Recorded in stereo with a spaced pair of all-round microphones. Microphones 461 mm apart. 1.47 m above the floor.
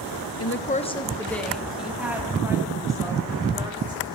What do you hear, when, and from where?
0.4 s a woman speaking: 35° left (ahead or behind), 0.8 m; by 4.2 s 10° right (ahead or behind), 5.5 m